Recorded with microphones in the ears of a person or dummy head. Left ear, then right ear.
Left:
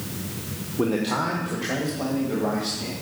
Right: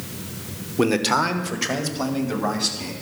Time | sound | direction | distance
0.8 | a man speaking | 65° right (ahead or behind) | 1.2 m